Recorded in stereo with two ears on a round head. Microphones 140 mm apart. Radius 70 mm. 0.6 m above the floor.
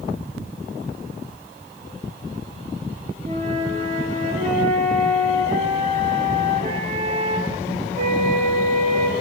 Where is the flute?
45° right (ahead or behind), 7.5 m.